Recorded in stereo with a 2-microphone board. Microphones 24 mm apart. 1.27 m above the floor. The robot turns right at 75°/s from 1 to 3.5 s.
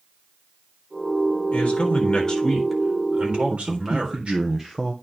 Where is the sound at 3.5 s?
20° right (ahead or behind), 0.8 m.